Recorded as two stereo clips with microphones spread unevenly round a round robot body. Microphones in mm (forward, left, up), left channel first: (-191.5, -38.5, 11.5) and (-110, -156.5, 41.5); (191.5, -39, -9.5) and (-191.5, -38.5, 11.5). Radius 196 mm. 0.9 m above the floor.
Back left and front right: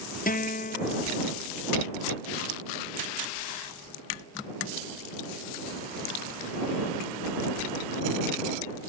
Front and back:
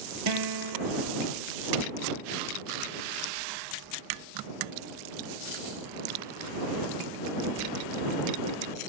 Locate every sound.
0.3 s a guitar: 140° left